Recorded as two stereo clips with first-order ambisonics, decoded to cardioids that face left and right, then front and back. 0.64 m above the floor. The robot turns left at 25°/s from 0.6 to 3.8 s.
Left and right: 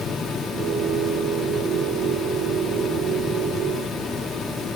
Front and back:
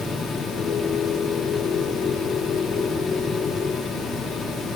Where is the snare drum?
No snare drum in this recording.